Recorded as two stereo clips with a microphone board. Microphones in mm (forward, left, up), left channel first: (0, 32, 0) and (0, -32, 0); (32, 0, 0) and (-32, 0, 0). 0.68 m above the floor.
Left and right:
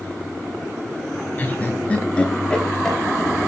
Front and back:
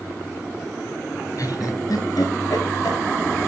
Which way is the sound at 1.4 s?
25° left.